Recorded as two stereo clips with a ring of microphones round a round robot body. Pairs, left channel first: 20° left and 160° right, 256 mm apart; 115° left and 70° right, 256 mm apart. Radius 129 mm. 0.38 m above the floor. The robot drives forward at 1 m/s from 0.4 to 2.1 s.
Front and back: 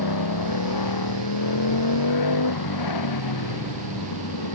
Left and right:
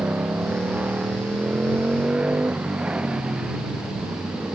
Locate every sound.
0.0 s a motorcycle: 15° left; by 4.6 s 20° left